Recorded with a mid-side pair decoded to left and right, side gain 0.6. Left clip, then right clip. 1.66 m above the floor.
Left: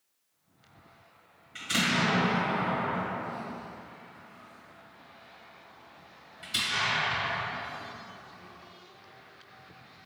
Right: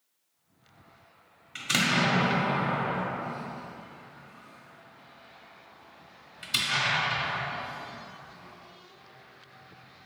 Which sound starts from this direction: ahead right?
An explosion, at 1.6 s.